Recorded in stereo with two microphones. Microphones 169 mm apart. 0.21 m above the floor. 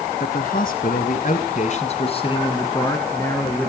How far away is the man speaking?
About 1.9 m.